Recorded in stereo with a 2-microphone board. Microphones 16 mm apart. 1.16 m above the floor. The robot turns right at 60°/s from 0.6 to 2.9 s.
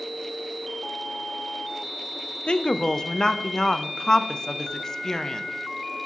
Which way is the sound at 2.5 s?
60° left (ahead or behind).